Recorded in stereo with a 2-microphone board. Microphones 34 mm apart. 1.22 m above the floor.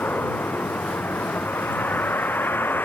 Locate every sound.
0.0 s a vehicle: 90° left